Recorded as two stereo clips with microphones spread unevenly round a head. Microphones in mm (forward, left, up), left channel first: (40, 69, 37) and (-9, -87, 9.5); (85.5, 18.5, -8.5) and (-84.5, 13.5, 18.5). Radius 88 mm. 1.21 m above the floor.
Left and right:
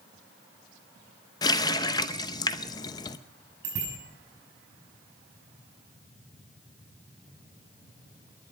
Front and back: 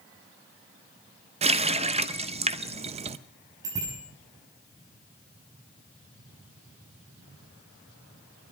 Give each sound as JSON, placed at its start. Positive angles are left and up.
{"t": 1.4, "sound": "a running tap", "azimuth_deg": 135, "distance_m": 0.6}
{"t": 3.6, "sound": "a bicycle bell", "azimuth_deg": -110, "distance_m": 7.0}